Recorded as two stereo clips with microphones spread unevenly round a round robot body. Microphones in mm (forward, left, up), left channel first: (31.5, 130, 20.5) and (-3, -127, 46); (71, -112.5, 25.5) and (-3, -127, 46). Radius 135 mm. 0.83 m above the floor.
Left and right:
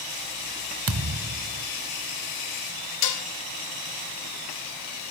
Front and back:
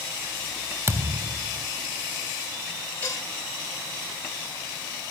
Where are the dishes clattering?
90° left, 2 m.